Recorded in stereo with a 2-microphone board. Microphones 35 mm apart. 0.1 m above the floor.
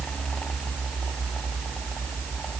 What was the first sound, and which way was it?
Only background noise.